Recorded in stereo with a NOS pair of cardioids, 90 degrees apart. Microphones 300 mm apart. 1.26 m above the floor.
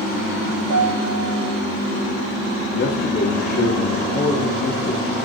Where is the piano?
70° right, 6 m.